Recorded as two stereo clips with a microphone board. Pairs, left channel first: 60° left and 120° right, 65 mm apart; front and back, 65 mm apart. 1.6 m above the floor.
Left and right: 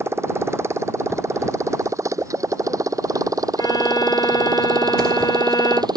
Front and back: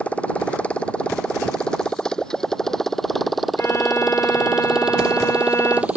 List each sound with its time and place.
0.0 s a motorcycle: 70° right; by 6.0 s 110° right
3.6 s a violin: 45° left